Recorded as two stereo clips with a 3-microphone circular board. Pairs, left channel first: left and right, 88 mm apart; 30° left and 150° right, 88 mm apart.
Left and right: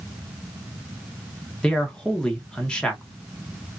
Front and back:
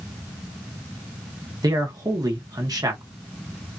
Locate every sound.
1.6 s a man speaking: 170° left, 1.2 m